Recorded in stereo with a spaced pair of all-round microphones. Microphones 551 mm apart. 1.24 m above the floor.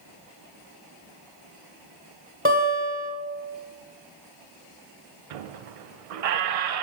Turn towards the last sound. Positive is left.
turn(degrees=-85)